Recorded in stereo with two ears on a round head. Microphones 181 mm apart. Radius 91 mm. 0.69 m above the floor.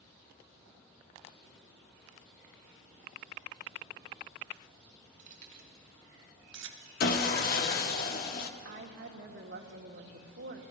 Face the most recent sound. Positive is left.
turn(degrees=-60)  # may be behind; listen again after turning